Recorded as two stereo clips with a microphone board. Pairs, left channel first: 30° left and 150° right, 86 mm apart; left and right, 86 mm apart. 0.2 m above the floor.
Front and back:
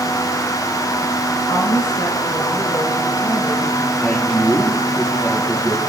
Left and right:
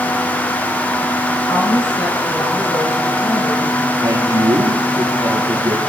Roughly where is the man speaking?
Ahead right.